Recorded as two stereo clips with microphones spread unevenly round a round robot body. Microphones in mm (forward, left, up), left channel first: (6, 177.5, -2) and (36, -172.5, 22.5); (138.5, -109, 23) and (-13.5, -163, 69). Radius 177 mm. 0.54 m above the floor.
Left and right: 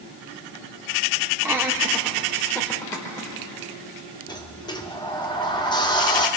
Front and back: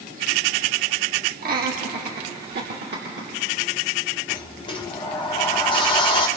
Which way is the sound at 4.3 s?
25° left.